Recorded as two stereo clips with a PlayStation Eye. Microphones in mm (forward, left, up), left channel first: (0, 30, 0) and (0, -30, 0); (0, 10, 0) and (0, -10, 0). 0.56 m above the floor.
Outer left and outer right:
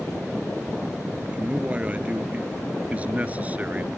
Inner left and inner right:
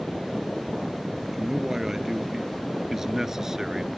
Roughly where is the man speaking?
Centre.